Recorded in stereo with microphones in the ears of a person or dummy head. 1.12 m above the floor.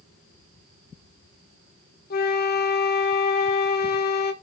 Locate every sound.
2.1 s a flute: 45° left (ahead or behind), 1.0 m